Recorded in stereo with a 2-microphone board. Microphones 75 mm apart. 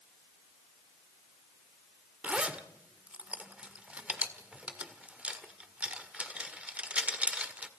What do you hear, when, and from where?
2.2 s a zipper: 15° right (ahead or behind), 1.7 m